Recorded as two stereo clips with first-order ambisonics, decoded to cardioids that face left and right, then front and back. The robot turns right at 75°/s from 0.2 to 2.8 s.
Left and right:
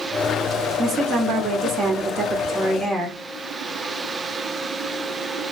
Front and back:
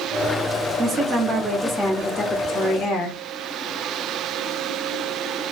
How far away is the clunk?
I don't hear a clunk.